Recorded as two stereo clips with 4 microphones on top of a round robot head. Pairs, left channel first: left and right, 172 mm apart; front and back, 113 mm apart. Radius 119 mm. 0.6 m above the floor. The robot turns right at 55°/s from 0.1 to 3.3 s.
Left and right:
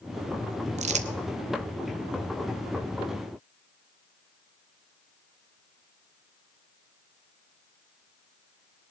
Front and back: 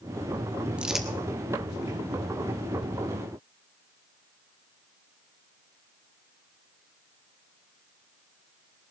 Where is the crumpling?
105° right, 1.1 m; by 1.1 s 90° right, 1.1 m.